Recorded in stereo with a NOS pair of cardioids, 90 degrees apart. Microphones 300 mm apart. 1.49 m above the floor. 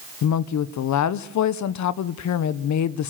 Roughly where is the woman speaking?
Ahead left.